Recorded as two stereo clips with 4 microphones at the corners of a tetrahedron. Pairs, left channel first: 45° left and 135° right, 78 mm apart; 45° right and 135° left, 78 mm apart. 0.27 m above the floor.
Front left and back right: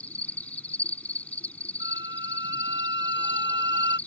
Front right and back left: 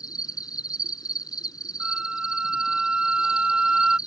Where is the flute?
145° right.